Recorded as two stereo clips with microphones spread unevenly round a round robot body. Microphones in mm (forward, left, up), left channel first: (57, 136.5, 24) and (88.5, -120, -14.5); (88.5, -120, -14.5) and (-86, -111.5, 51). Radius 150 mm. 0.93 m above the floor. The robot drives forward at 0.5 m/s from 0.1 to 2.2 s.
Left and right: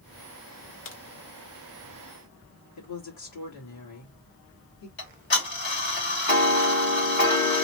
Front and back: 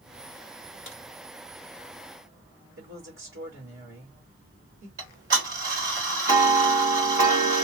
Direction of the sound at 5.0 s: 150° left.